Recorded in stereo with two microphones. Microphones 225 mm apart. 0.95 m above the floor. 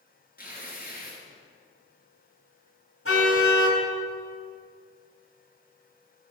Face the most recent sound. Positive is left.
turn(degrees=70)  # may be behind; listen again after turning